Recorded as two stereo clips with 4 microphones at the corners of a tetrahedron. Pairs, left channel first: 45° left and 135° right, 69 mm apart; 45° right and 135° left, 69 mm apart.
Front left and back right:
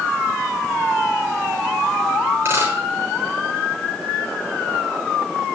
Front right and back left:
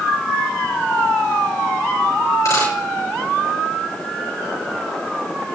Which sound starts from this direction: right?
A dropped coin, at 2.5 s.